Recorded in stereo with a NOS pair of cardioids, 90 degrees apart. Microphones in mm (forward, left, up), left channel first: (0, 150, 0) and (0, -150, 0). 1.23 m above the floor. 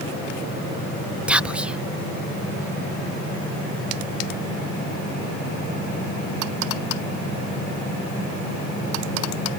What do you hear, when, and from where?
1.3 s whispering: 5° right